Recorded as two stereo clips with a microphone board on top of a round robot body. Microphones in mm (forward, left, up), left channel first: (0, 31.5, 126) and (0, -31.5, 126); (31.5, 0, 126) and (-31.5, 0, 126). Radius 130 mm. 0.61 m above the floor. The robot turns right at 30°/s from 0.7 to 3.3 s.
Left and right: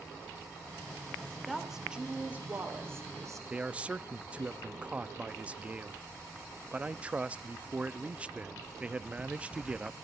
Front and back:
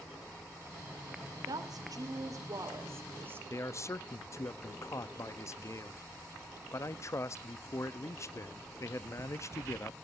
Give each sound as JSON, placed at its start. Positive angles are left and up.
{"t": 1.5, "sound": "a woman speaking", "azimuth_deg": 180, "distance_m": 3.0}
{"t": 3.5, "sound": "a man speaking", "azimuth_deg": -25, "distance_m": 0.7}